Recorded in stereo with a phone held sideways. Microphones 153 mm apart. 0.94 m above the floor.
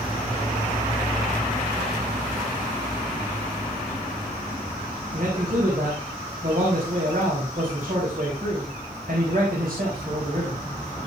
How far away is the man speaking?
About 5.5 m.